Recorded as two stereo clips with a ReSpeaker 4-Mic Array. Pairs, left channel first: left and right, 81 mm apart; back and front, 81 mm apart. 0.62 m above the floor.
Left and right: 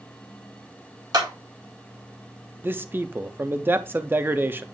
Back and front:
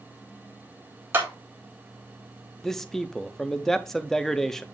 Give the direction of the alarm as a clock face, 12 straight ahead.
I don't hear an alarm.